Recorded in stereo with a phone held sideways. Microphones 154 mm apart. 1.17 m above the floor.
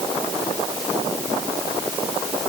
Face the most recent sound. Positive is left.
No sound to turn to.